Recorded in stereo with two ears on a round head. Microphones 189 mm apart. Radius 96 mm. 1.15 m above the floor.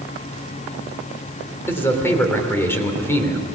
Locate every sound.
1.7 s a man speaking: 10° left (ahead or behind), 3.5 m